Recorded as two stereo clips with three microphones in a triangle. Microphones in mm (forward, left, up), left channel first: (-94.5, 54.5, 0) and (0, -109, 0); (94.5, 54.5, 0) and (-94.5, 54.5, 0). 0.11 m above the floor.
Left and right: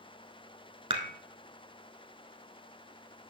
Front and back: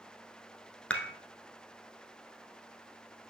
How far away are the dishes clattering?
About 0.9 m.